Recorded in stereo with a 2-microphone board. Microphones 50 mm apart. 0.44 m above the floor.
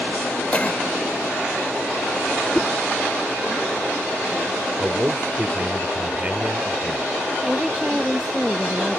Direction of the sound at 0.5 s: 30° left (ahead or behind).